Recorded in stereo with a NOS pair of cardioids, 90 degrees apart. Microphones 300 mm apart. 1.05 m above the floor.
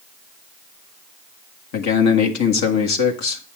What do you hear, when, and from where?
1.7 s a man speaking: 65° left, 1.5 m